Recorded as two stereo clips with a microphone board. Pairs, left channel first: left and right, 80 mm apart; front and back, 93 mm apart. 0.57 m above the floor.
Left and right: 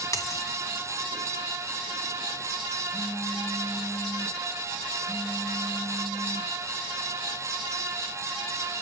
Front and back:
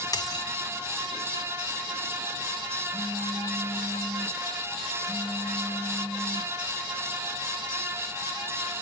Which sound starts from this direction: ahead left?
A dropped coin, at 0.1 s.